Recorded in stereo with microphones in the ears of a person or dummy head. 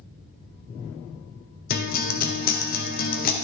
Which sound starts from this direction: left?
A guitar, at 1.7 s.